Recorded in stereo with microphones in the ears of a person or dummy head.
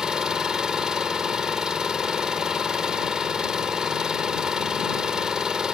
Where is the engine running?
Centre (ahead or behind).